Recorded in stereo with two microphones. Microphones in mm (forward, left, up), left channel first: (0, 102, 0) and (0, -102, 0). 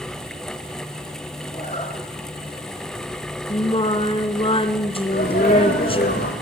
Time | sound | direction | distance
1.5 | a zipper | 35° left (ahead or behind) | 9.5 m
3.5 | singing | 30° left (ahead or behind) | 1.9 m
5.1 | a sneeze | 50° left (ahead or behind) | 4.5 m